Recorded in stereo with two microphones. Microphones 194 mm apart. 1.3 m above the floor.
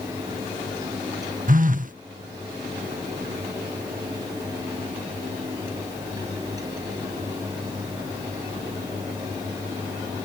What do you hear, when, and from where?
1.5 s a phone buzzing: 45° right (ahead or behind)